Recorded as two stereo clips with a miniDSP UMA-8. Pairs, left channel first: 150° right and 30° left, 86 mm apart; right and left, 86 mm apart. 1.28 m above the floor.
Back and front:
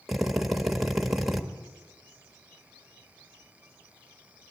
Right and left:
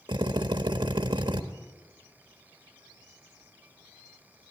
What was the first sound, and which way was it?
A drill, 120° left.